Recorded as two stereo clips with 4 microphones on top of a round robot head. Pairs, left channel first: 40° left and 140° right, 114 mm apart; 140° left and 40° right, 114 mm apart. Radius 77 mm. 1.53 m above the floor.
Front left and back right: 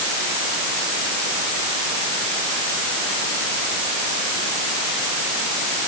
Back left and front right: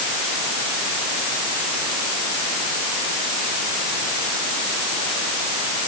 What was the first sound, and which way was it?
Only background noise.